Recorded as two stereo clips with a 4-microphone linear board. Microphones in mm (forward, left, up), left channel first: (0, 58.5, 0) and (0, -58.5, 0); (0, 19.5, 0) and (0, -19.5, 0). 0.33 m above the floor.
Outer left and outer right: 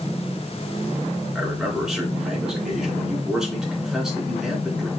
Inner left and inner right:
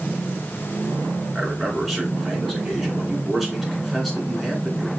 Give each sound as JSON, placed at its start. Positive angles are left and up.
{"t": 1.4, "sound": "a man speaking", "side_deg": -5, "distance_m": 3.5}